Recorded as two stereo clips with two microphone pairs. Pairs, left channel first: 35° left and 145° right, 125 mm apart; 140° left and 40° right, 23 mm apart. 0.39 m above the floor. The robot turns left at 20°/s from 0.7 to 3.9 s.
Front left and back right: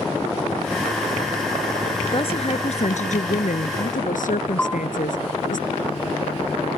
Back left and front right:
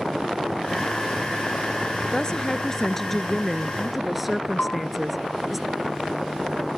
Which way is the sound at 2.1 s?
80° left.